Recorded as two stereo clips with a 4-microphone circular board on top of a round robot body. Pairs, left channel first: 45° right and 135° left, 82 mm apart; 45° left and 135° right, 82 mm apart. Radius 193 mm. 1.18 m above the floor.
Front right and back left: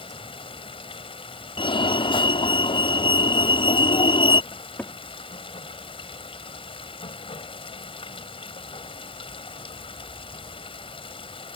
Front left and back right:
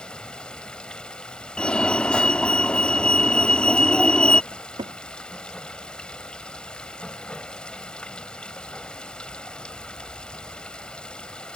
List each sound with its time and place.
0.0 s running water: 35° right
1.6 s a fire alarm: 35° right
4.5 s a cupboard door: 115° right